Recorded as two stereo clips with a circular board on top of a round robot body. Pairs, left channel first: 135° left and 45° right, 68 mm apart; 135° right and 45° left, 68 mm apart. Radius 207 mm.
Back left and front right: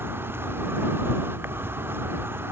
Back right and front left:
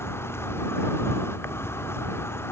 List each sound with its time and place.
0.0 s an insect: 95° right